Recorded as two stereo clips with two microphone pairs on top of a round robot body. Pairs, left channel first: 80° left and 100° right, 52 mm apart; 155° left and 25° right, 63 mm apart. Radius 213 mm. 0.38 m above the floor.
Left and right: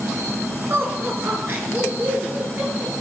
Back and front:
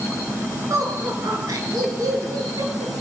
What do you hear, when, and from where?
0.7 s laughter: 60° right, 6.5 m; by 2.9 s 45° right, 9.5 m